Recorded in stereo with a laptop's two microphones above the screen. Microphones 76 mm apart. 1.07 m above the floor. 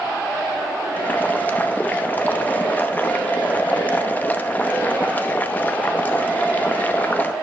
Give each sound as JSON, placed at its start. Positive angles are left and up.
{"t": 1.0, "sound": "boiling", "side_deg": 25, "distance_m": 0.9}